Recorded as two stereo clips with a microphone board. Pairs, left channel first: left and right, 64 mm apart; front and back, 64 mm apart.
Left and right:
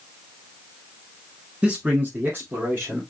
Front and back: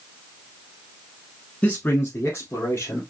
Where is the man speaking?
40° right, 1.2 m; by 3.0 s 45° right, 2.5 m.